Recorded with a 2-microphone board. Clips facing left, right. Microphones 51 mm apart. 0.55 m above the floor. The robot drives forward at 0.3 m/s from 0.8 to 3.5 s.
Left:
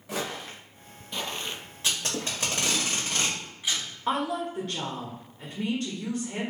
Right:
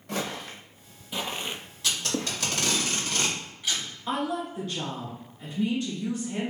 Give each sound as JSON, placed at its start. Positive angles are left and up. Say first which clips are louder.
{"t": 0.1, "sound": "footsteps", "louder": "right 1 dB", "side_deg": 5, "distance_m": 1.2}
{"t": 1.8, "sound": "tape being pulled", "louder": "right 1 dB", "side_deg": 30, "distance_m": 1.3}
{"t": 4.1, "sound": "a woman speaking", "louder": "left 1 dB", "side_deg": 50, "distance_m": 1.5}